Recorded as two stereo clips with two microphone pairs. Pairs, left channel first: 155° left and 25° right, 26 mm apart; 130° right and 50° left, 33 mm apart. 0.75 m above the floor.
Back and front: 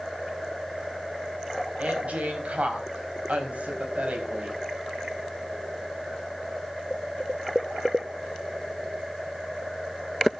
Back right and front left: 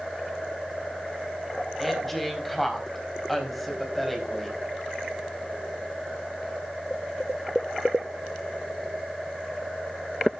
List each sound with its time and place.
1.8 s a woman speaking: 45° right, 4 m